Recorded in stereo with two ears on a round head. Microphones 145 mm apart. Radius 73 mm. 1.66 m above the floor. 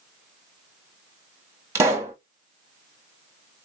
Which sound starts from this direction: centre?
A pop, at 1.8 s.